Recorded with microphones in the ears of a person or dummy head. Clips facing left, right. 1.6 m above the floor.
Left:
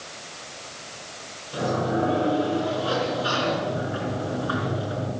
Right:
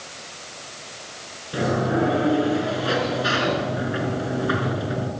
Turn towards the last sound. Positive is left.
turn(degrees=-25)  # may be behind; listen again after turning